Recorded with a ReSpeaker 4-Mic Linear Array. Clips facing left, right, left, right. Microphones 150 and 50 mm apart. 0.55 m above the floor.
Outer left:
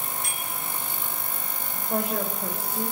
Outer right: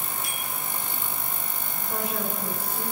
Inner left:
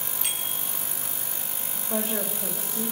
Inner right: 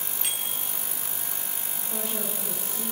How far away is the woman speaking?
About 2 m.